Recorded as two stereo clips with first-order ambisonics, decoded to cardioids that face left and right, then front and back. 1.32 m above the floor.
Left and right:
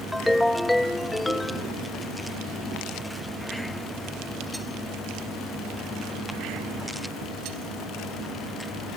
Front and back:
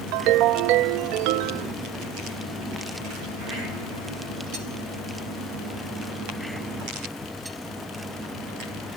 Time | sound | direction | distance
0.1 | a ringtone | 175° left | ?